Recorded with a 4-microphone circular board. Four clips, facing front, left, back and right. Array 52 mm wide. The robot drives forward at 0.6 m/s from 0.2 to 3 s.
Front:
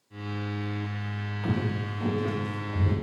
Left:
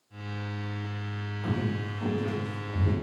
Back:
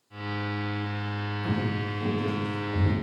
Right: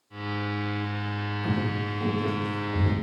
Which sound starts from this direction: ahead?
Footsteps, at 1.4 s.